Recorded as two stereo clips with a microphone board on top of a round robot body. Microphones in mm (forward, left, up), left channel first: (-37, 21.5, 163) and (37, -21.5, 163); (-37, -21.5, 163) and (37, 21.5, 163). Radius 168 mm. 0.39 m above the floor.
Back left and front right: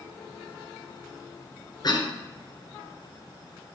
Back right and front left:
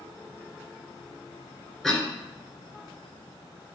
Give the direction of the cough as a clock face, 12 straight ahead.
8 o'clock.